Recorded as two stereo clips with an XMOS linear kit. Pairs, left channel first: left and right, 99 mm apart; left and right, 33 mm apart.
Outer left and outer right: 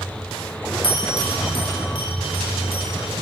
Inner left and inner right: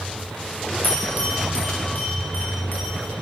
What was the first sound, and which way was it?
A bell, 60° left (ahead or behind).